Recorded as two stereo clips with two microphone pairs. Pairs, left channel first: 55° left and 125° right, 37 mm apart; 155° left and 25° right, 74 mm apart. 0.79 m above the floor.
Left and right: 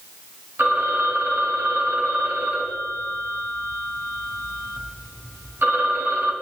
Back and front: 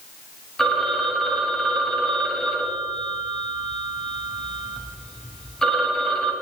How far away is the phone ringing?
About 3 m.